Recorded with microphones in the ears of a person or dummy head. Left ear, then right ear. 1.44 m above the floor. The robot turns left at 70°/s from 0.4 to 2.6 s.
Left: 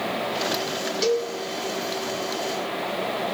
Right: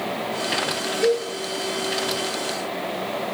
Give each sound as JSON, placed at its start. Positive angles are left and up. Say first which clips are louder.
{"t": 1.0, "sound": "a cowbell", "louder": "right 2 dB", "side_deg": 50, "distance_m": 3.5}